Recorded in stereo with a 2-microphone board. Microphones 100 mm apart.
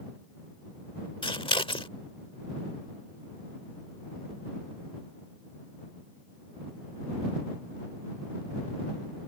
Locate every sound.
1.2 s scissors: 60° left (ahead or behind)